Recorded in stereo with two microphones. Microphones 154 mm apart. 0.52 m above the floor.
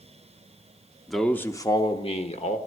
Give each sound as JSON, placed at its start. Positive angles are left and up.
{"t": 1.1, "sound": "a man speaking", "side_deg": 0, "distance_m": 0.8}